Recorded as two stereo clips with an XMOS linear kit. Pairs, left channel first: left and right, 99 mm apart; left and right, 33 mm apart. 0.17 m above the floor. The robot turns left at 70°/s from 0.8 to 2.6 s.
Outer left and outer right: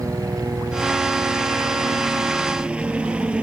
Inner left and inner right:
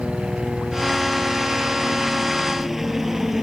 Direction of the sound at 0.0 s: 35° right (ahead or behind).